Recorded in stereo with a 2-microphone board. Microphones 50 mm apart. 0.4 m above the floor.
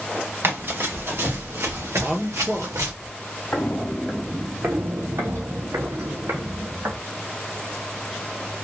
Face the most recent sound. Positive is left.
turn(degrees=-80)